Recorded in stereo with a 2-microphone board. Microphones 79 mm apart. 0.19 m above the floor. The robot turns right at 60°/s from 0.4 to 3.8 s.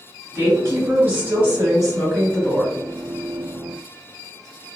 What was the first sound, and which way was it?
A woman speaking, 90° right.